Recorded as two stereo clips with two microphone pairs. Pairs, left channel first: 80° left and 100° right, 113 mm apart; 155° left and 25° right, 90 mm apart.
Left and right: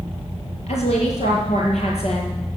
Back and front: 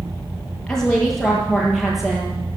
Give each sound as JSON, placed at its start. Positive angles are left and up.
{"t": 0.7, "sound": "a woman speaking", "azimuth_deg": 70, "distance_m": 5.5}